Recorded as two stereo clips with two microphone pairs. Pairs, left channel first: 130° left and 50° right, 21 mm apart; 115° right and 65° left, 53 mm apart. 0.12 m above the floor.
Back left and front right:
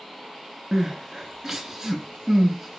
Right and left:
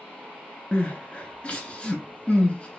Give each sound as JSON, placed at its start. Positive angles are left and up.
{"t": 0.7, "sound": "crying", "azimuth_deg": -80, "distance_m": 0.6}